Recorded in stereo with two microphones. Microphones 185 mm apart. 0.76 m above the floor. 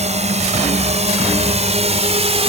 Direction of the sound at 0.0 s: 35° right (ahead or behind).